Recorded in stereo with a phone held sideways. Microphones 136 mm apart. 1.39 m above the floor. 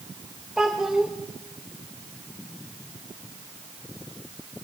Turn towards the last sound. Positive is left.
turn(degrees=-5)  # may be behind; listen again after turning